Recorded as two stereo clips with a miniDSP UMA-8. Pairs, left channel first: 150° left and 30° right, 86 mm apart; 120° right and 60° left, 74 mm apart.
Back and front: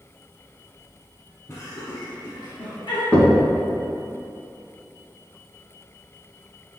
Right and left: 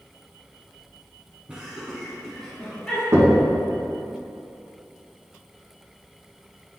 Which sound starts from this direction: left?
Knocking, at 3.1 s.